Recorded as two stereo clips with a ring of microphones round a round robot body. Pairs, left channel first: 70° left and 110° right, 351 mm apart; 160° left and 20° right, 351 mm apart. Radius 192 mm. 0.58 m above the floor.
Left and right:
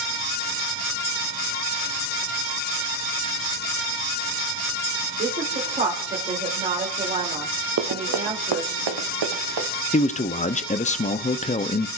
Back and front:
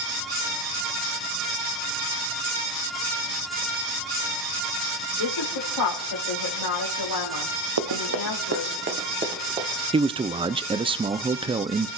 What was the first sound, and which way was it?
A woman speaking, straight behind.